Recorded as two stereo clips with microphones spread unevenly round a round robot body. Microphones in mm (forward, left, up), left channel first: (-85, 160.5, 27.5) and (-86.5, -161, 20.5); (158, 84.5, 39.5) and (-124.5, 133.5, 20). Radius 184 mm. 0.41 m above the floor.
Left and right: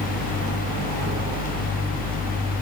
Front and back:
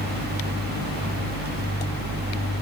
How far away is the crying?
No crying in this recording.